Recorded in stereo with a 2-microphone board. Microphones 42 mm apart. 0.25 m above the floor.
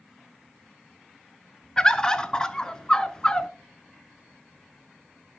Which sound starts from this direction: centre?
A bird, at 1.8 s.